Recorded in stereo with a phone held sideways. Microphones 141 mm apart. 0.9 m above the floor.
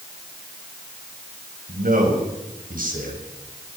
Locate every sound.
1.7 s a man speaking: 80° right, 6.5 m